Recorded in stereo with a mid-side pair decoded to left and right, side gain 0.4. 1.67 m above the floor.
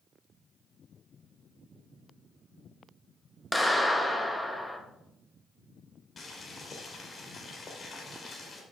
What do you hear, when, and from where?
3.5 s a clap: 10° left, 2 m
6.2 s boiling: 45° left, 3 m